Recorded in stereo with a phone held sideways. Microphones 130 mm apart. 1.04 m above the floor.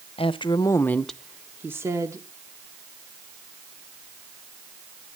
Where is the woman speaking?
45° left (ahead or behind), 0.8 m; by 2.3 s 25° right (ahead or behind), 1.5 m.